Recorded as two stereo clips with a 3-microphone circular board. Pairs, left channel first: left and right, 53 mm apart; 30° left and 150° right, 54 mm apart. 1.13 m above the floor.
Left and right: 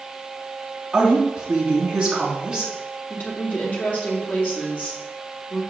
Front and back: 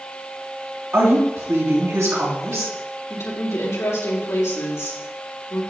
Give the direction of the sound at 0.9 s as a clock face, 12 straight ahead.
5 o'clock.